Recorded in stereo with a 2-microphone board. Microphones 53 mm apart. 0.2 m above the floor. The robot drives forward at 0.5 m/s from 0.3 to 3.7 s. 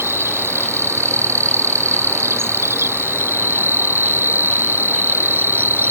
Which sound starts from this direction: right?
An insect, at 0.0 s.